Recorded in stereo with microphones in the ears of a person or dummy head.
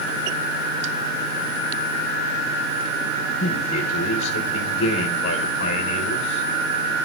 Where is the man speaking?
75° left (ahead or behind), 1.5 m.